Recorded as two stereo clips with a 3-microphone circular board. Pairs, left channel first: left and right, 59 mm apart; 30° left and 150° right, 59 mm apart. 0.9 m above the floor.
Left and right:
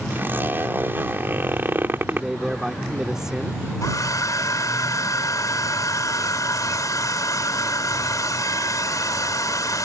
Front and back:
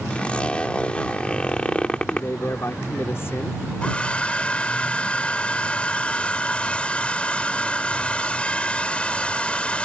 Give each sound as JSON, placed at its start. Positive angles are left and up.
{"t": 0.1, "sound": "a zipper", "azimuth_deg": -40}
{"t": 2.1, "sound": "a man speaking", "azimuth_deg": -10}
{"t": 3.8, "sound": "a hair dryer", "azimuth_deg": 100}